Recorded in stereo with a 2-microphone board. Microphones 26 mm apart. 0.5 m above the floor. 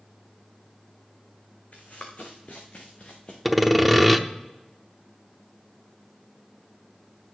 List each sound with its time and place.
1.7 s running footsteps: 65° left (ahead or behind), 2.5 m; by 3.4 s 40° left (ahead or behind), 3 m
3.5 s sawing: centre (ahead or behind), 0.6 m